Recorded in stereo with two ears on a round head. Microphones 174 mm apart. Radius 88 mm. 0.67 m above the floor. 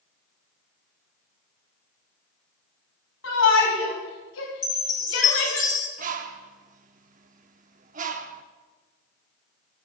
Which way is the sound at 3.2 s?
70° left (ahead or behind).